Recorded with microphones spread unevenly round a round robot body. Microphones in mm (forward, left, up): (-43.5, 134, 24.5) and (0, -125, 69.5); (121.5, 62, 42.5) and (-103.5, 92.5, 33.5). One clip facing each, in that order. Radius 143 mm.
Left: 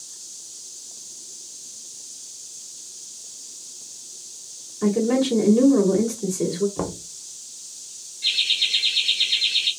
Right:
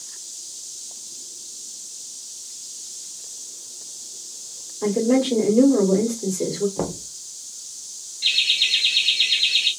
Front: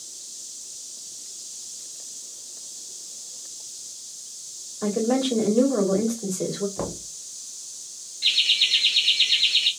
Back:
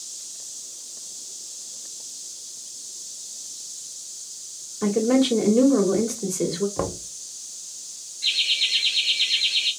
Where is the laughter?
5° right, 1.0 m.